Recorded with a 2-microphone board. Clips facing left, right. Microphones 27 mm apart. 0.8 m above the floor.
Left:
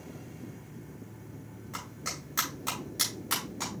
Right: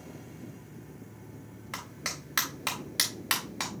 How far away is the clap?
About 4.5 m.